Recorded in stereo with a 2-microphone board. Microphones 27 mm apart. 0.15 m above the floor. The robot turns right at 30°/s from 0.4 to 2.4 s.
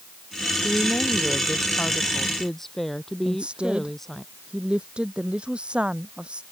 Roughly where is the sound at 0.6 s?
Behind left.